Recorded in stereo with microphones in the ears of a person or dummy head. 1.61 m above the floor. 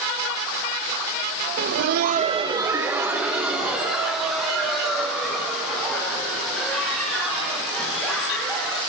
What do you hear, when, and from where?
1.6 s laughter: 50° right (ahead or behind), 0.6 m; by 8.8 s centre (ahead or behind), 8.5 m